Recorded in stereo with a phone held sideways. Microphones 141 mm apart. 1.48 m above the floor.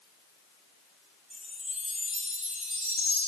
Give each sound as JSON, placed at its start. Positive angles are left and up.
{"t": 1.3, "sound": "a chime", "side_deg": -50, "distance_m": 1.1}